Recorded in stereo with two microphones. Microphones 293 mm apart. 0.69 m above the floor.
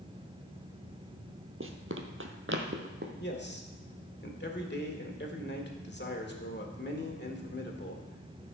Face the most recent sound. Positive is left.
turn(degrees=35)  # may be behind; listen again after turning